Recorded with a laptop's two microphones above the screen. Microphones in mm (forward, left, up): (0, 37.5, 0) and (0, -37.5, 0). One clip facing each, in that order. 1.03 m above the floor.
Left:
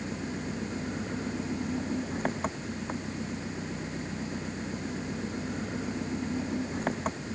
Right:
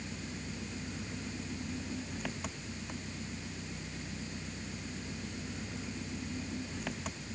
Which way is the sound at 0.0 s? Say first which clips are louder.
Left 8 dB; 40° left (ahead or behind).